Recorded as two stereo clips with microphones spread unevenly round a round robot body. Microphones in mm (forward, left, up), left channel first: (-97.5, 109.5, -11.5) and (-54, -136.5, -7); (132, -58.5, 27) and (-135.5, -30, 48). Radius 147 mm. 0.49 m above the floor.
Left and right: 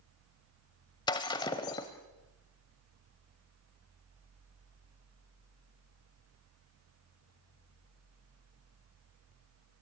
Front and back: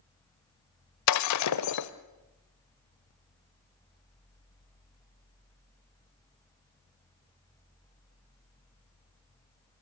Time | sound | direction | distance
1.1 | breaking glass | 25° left | 0.8 m